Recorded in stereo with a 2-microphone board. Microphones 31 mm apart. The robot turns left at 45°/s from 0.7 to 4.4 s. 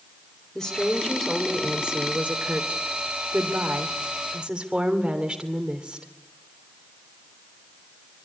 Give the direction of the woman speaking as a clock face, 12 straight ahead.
11 o'clock.